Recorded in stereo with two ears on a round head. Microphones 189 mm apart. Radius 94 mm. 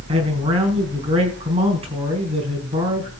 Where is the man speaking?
30° right (ahead or behind), 4 m.